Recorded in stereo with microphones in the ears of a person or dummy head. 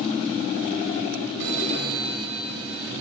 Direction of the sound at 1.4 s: 70° right (ahead or behind).